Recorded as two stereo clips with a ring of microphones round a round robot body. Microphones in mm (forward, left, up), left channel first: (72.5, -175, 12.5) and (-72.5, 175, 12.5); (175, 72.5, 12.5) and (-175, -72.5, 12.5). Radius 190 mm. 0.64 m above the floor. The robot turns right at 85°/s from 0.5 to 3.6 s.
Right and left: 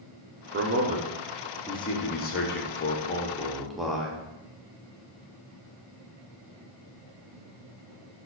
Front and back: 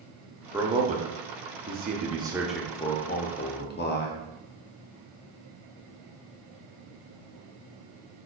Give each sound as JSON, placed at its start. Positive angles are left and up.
{"t": 0.5, "sound": "a man speaking", "azimuth_deg": 125, "distance_m": 0.5}